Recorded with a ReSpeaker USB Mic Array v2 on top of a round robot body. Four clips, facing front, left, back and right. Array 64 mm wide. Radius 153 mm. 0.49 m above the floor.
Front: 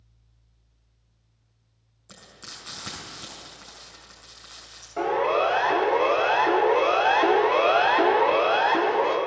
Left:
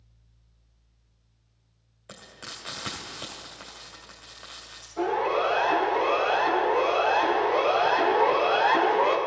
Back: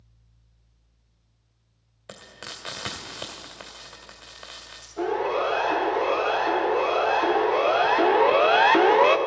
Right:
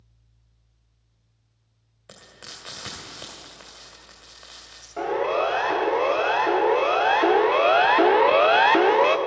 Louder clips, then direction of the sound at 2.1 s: Left 2 dB, back 5 dB; straight behind.